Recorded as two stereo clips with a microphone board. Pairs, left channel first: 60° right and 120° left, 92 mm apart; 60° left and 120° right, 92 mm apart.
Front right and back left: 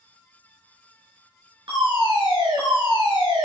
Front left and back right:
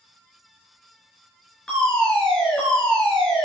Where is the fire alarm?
140° left, 5.5 m.